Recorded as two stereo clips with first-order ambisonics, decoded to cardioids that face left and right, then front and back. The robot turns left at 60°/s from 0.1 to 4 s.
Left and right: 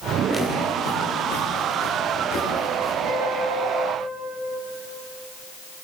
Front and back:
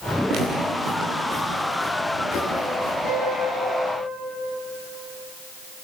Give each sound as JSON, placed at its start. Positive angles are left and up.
{"t": 0.3, "sound": "footsteps", "azimuth_deg": 170, "distance_m": 8.5}
{"t": 3.0, "sound": "a piano", "azimuth_deg": -45, "distance_m": 9.0}